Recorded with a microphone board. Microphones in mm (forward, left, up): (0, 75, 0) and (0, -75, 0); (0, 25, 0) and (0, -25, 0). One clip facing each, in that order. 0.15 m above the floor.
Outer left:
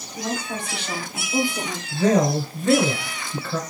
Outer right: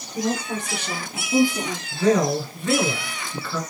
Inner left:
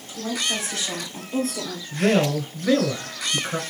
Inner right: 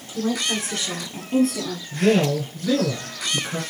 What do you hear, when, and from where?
0.1 s a woman speaking: 45° right (ahead or behind), 2.5 m; by 1.8 s 55° right (ahead or behind), 2.5 m
1.9 s a man speaking: 25° left (ahead or behind), 1.3 m